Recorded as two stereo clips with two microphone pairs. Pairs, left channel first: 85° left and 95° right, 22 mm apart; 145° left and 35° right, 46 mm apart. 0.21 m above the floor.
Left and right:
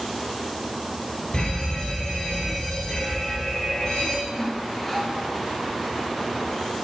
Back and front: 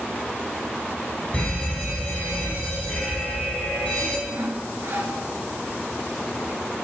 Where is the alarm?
95° left, 1.3 m.